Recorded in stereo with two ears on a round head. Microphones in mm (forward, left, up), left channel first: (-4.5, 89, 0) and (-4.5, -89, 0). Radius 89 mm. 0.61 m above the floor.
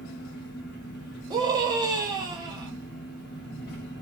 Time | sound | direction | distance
0.0 | an engine running | 55° left (ahead or behind) | 0.9 m
1.3 | a scream | 20° right (ahead or behind) | 0.5 m